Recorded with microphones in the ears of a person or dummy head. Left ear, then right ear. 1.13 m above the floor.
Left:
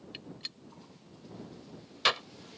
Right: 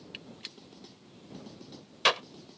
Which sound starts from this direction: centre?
A gunshot, at 0.1 s.